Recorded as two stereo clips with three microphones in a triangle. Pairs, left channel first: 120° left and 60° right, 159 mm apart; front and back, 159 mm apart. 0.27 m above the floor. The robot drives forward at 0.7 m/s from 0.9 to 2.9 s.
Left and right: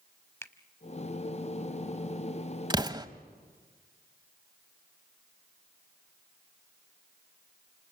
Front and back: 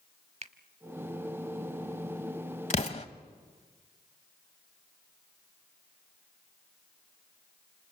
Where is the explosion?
10° right, 1.3 m.